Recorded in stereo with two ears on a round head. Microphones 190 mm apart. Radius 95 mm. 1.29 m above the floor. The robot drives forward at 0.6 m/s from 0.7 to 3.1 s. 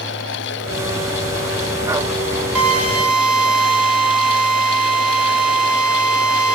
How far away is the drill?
About 8 m.